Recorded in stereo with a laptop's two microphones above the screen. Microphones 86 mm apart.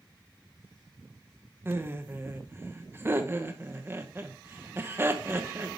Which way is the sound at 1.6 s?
25° right (ahead or behind).